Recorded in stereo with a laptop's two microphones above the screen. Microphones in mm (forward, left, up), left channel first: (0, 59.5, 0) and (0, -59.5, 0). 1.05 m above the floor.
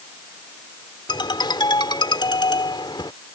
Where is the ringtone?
40° left (ahead or behind).